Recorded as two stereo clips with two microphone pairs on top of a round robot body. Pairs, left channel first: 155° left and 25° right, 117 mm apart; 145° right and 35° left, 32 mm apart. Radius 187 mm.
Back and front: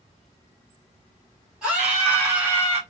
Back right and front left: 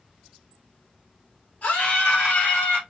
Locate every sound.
1.6 s a scream: 105° right, 3 m; by 2.8 s 100° right, 3.5 m